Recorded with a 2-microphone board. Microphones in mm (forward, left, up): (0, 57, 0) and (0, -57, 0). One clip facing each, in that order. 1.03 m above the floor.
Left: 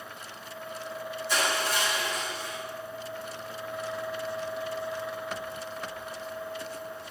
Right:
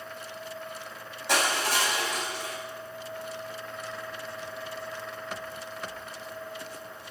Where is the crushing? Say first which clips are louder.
Right 2 dB; 85° right, 8.5 m.